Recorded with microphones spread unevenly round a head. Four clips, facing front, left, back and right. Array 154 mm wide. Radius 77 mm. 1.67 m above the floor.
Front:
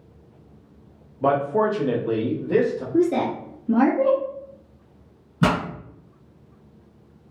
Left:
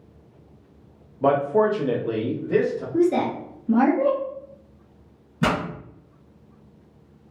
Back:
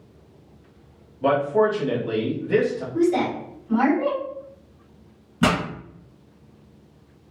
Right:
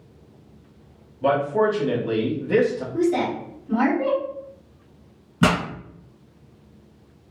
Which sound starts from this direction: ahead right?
A pop, at 5.4 s.